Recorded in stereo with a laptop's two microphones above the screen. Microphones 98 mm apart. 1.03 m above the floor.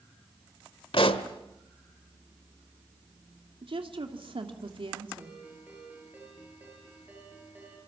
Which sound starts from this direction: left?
A pop, at 0.9 s.